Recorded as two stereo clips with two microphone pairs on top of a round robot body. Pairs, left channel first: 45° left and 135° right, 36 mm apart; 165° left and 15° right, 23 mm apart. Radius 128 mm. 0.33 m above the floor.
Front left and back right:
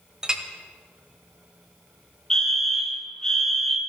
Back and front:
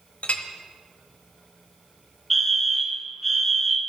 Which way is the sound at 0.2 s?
160° left.